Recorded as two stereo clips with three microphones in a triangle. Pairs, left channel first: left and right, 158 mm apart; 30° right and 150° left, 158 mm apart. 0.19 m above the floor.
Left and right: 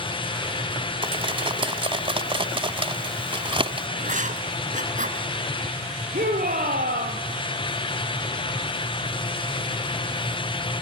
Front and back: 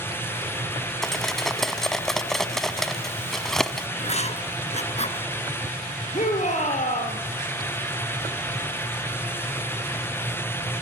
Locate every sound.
1.0 s cutlery clinking: 115° right, 0.9 m
4.0 s writing: 70° right, 1.8 m
6.1 s a shout: 70° right, 5.5 m